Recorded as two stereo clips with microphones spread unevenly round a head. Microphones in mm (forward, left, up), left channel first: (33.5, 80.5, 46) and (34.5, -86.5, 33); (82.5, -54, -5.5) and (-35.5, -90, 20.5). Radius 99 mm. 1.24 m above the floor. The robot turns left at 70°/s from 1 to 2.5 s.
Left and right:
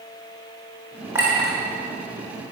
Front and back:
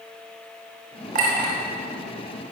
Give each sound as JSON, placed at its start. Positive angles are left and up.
{"t": 1.1, "sound": "a clink", "azimuth_deg": -170, "distance_m": 3.5}